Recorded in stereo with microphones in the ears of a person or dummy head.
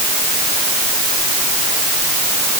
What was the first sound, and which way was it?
Only background noise.